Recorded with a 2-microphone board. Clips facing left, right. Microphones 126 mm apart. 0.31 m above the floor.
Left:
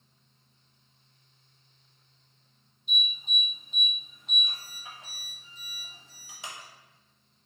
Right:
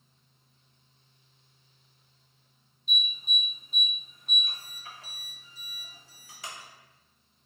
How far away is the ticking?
No ticking in this recording.